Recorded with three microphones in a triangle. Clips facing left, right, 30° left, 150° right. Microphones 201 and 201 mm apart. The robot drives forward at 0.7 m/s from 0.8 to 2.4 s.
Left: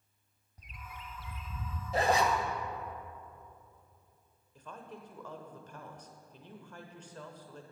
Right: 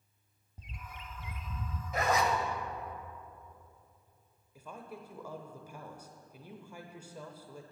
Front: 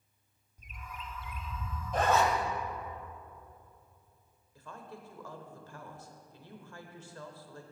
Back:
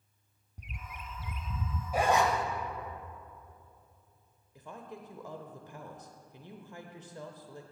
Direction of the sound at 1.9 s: 130° left.